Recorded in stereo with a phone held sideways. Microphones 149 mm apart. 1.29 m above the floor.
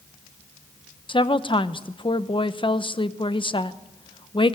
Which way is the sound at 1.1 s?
35° left (ahead or behind).